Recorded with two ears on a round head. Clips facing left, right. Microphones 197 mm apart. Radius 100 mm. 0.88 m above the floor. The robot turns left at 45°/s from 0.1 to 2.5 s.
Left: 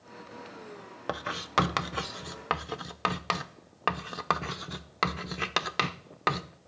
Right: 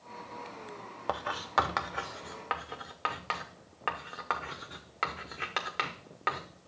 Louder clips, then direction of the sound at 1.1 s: Even; 20° left (ahead or behind).